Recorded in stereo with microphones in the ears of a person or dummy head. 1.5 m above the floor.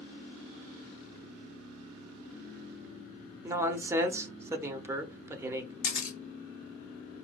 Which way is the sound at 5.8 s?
75° left (ahead or behind).